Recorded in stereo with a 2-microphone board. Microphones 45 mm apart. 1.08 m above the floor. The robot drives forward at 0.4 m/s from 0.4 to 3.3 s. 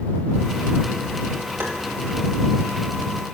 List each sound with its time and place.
1.6 s tapping: 60° right (ahead or behind), 2.0 m